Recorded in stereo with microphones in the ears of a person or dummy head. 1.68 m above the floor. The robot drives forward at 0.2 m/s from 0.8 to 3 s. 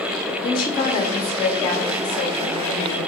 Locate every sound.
0.4 s a woman speaking: 25° left (ahead or behind), 0.8 m; by 3.1 s 15° left (ahead or behind), 1.1 m